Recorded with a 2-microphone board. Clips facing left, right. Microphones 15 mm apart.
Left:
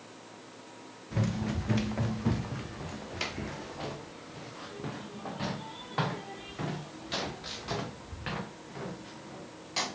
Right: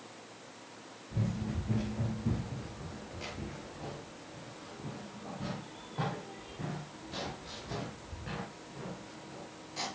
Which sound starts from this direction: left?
Running footsteps, at 1.1 s.